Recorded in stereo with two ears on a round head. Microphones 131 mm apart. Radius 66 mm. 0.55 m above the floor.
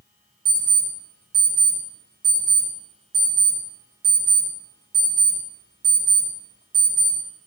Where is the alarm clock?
60° right (ahead or behind), 1.4 m.